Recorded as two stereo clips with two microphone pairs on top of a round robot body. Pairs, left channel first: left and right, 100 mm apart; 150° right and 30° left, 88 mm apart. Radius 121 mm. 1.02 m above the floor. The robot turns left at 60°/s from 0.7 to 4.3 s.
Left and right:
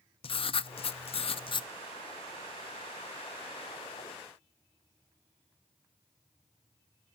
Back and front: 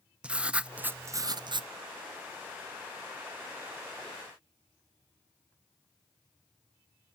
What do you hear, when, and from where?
0.2 s writing: 110° left, 0.7 m; by 1.7 s 50° left, 0.7 m